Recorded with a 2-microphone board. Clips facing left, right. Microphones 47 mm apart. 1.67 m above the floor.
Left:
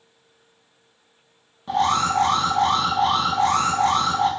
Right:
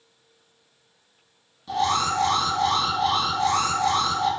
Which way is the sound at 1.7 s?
30° left (ahead or behind).